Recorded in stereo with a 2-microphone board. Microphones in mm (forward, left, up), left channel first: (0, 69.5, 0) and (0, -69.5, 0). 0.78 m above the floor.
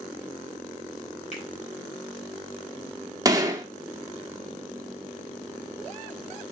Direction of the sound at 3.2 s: 25° right (ahead or behind).